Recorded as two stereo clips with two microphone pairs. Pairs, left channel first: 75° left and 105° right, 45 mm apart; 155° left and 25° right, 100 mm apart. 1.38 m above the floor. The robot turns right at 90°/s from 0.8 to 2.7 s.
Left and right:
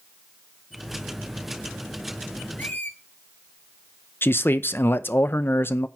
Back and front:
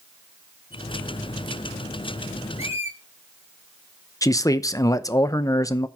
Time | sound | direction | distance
2.6 | a squeak | 30° left | 1.6 m
4.2 | a man speaking | 105° left | 0.7 m